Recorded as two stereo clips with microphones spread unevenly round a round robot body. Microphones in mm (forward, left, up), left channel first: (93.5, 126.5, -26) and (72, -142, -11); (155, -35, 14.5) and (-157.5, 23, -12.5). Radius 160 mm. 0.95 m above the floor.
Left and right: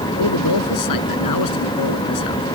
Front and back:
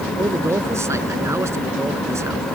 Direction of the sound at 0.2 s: 85° left.